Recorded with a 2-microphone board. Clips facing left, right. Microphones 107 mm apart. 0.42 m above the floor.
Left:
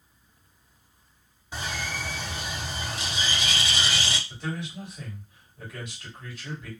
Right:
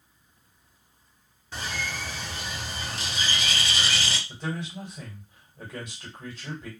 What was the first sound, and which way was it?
A bird, 15° left (ahead or behind).